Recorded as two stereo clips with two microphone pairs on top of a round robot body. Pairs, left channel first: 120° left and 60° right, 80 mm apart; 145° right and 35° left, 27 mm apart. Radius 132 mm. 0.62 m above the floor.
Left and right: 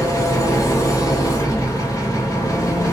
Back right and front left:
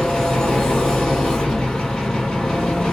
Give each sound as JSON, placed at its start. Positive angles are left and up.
{"t": 0.0, "sound": "an engine running", "azimuth_deg": 165, "distance_m": 1.6}